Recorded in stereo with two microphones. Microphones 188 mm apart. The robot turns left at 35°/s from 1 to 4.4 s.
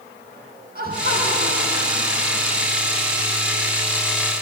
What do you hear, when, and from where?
0.8 s laughter: 50° right, 7.5 m; by 2.7 s 110° right, 7.5 m